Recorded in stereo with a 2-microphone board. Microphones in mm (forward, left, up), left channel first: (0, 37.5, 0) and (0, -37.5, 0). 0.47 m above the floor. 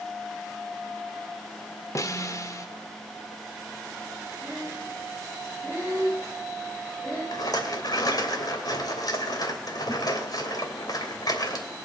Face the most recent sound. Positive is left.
turn(degrees=60)  # may be behind; listen again after turning